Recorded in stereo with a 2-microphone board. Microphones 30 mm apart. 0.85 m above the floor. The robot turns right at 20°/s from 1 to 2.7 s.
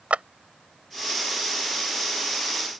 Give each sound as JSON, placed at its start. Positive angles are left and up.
{"t": 0.1, "sound": "a clap", "side_deg": -50}